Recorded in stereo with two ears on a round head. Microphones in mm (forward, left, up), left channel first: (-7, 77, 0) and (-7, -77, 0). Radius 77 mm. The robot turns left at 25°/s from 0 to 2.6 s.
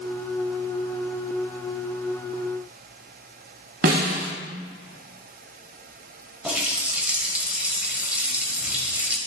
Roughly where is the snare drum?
Right.